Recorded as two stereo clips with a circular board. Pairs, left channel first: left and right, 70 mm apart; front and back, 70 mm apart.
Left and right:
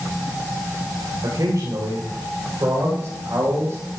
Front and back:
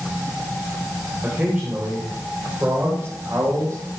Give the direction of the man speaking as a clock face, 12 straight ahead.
4 o'clock.